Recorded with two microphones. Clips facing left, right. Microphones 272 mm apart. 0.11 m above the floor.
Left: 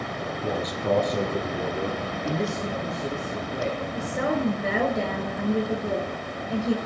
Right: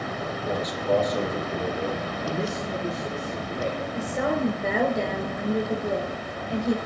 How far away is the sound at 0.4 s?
About 3 m.